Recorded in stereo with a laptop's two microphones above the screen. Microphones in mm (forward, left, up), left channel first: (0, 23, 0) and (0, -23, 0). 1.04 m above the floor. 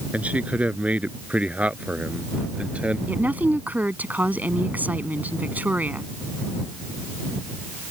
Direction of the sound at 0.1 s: 30° right (ahead or behind).